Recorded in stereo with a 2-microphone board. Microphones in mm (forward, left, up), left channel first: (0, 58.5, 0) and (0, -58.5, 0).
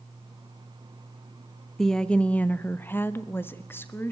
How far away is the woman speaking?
About 1.0 m.